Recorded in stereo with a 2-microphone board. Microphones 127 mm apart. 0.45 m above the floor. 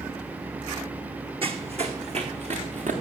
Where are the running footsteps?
45° right (ahead or behind), 1.4 m; by 2.9 s 65° right (ahead or behind), 2.5 m.